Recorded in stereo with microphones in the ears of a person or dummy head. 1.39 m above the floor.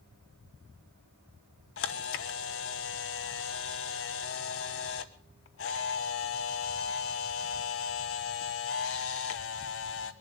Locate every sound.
1.8 s a camera shutter: 60° left (ahead or behind), 0.9 m